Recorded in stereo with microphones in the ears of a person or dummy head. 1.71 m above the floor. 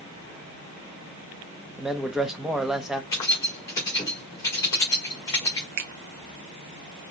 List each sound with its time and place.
1.8 s a man speaking: 5° right (ahead or behind), 0.8 m
3.1 s keys jangling: 20° left (ahead or behind), 1.7 m
5.8 s a finger snap: 50° right (ahead or behind), 0.7 m